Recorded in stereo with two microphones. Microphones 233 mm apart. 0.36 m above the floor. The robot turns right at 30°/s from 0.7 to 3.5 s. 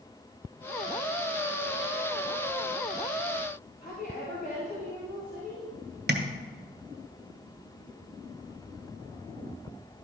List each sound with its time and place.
3.8 s a woman speaking: 40° left (ahead or behind), 2 m
6.1 s tapping: 45° right (ahead or behind), 0.9 m